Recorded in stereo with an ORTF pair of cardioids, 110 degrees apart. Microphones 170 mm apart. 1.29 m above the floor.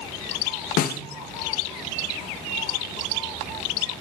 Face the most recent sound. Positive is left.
turn(degrees=60)